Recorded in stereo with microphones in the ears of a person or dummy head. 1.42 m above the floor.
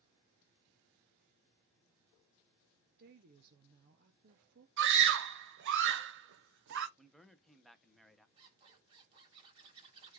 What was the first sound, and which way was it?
A woman speaking, 50° right (ahead or behind).